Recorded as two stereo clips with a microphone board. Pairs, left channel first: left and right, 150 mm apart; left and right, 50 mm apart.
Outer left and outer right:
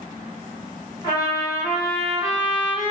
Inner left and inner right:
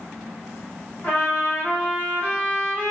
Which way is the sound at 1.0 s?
30° left (ahead or behind).